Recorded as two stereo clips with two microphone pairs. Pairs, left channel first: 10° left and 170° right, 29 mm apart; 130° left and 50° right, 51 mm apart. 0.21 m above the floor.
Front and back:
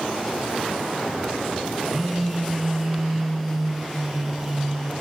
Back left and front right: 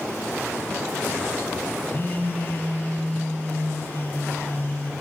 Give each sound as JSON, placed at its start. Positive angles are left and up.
{"t": 1.9, "sound": "a phone buzzing", "azimuth_deg": 105, "distance_m": 0.9}